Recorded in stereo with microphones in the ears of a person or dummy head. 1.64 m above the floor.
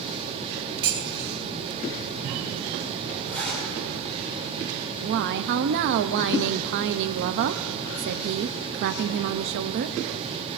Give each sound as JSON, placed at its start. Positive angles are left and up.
{"t": 0.8, "sound": "dishes clattering", "side_deg": -25, "distance_m": 1.9}
{"t": 3.3, "sound": "a zipper", "side_deg": 10, "distance_m": 7.5}
{"t": 4.9, "sound": "a woman speaking", "side_deg": -60, "distance_m": 0.6}